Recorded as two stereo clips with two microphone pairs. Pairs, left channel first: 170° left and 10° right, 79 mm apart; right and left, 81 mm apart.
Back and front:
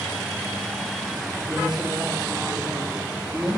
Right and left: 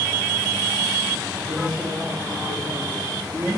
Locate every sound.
1.5 s a woman speaking: 60° left, 2 m